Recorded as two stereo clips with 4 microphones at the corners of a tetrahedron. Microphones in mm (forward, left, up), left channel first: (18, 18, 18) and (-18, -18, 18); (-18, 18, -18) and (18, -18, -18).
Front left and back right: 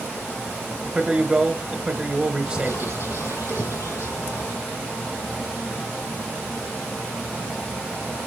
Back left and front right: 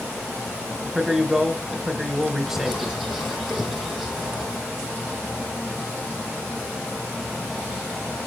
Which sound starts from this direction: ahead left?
A bird, at 2.5 s.